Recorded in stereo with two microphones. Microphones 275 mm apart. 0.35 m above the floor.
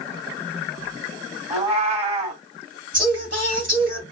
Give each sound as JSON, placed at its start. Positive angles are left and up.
{"t": 1.5, "sound": "a cat meowing", "side_deg": -25, "distance_m": 1.1}
{"t": 2.9, "sound": "singing", "side_deg": -45, "distance_m": 1.5}